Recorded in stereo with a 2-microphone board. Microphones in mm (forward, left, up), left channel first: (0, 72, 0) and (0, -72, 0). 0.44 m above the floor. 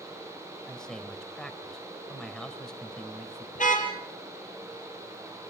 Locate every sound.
0.7 s a man speaking: 5° left (ahead or behind), 2 m
3.5 s a car horn: 65° left (ahead or behind), 4.5 m